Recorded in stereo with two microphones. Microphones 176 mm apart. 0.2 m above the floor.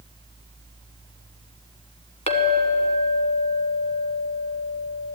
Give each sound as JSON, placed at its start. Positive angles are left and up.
{"t": 2.3, "sound": "a clink", "side_deg": 40, "distance_m": 1.3}